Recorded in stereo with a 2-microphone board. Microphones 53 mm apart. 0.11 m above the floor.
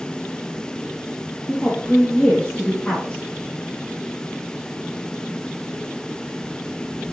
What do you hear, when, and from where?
1.5 s a woman speaking: 25° left (ahead or behind), 3 m